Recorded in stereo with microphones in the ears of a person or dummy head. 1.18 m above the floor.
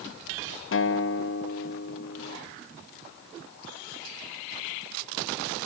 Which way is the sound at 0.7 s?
65° left (ahead or behind).